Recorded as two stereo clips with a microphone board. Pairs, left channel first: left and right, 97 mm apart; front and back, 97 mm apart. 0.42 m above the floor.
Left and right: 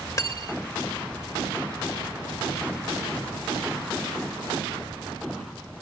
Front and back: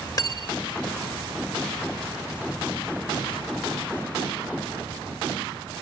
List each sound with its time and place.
0.2 s cutlery clinking: 45° left